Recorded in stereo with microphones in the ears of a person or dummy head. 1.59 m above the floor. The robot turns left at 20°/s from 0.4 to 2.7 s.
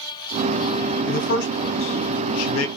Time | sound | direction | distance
1.1 | a man speaking | 60° left (ahead or behind) | 1.0 m